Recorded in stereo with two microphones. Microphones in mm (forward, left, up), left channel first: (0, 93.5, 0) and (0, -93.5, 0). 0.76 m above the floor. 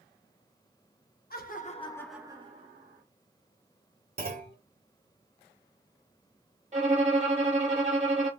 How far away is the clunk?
About 1.0 m.